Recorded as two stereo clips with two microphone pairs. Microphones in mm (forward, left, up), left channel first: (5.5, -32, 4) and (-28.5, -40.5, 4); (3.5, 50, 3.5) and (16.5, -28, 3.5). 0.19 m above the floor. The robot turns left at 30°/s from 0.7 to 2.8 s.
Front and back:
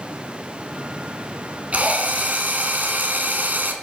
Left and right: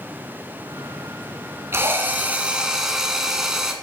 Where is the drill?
130° right, 1.2 m; by 3.7 s 165° right, 1.2 m.